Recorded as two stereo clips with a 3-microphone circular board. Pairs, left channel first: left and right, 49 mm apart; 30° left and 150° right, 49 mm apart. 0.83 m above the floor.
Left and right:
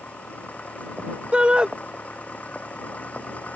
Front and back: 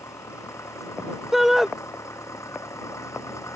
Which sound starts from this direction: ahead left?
An engine running, at 0.0 s.